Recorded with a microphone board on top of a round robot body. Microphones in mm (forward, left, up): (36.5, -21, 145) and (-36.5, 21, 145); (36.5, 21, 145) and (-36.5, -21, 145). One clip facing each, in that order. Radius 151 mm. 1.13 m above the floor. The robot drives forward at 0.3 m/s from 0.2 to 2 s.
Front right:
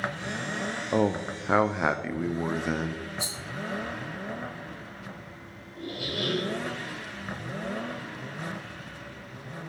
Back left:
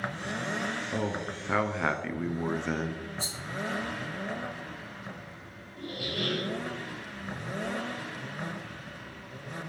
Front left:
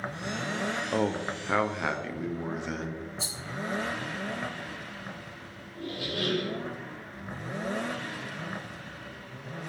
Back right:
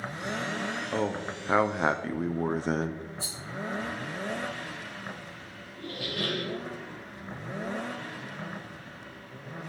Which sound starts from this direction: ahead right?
A man speaking, at 0.9 s.